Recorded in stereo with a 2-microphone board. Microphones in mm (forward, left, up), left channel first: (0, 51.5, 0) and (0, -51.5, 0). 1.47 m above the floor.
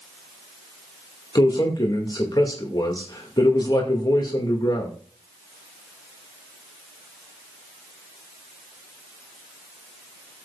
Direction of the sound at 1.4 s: 45° left (ahead or behind).